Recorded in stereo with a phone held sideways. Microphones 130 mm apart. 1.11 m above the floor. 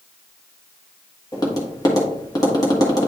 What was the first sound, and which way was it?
Tapping, 30° left (ahead or behind).